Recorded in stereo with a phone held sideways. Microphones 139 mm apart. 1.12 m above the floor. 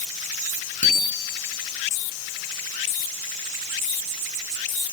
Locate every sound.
0.8 s a bicycle bell: 60° left (ahead or behind), 9.5 m